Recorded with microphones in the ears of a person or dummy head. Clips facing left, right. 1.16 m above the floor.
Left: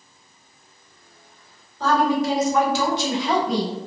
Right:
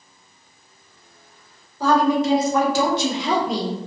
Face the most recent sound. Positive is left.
turn(degrees=-75)  # may be behind; listen again after turning